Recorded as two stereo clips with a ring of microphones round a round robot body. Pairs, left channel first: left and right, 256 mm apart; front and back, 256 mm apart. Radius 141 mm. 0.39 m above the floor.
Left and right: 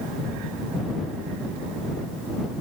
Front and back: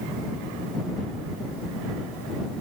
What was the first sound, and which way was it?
Only background noise.